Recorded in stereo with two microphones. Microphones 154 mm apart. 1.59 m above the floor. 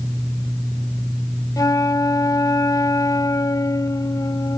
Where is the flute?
25° left (ahead or behind).